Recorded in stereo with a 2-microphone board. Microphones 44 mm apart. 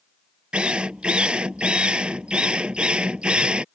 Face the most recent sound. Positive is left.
turn(degrees=-20)  # may be behind; listen again after turning